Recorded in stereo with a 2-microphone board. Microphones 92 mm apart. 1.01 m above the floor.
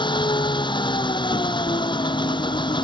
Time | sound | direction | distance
0.0 | an engine running | 50° left (ahead or behind) | ?